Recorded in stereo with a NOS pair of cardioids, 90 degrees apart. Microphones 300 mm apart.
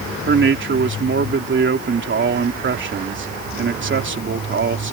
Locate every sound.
0.3 s a man speaking: 40° right